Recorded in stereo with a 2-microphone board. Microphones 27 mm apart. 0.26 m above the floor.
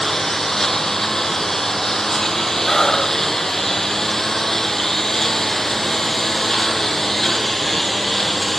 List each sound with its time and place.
0.0 s a lawn mower: 10° left (ahead or behind)
2.7 s breathing: 20° left (ahead or behind)